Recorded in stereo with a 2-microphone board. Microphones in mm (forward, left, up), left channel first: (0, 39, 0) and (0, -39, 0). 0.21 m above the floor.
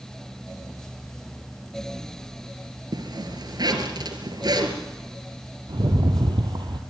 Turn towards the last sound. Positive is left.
turn(degrees=-75)  # may be behind; listen again after turning